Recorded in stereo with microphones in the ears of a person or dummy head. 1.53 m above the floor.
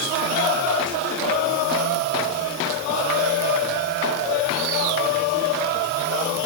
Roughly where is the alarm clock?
I don't hear an alarm clock.